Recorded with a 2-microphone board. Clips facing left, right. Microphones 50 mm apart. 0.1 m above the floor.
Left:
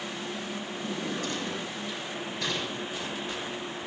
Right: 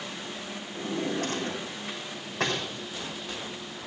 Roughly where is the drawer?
Right.